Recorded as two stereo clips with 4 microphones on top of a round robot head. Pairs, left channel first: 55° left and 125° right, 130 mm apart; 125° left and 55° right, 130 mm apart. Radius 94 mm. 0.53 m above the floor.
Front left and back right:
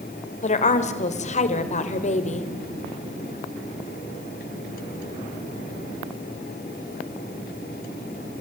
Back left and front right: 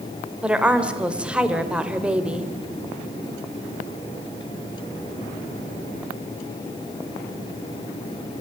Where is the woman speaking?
25° left, 2 m.